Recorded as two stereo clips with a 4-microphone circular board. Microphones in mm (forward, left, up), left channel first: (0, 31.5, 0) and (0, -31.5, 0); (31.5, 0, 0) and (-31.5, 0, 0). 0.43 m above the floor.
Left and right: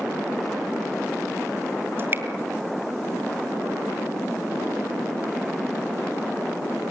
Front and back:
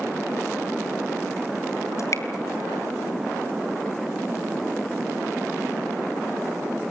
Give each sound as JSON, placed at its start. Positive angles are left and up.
{"t": 2.0, "sound": "dripping", "azimuth_deg": -35, "distance_m": 3.5}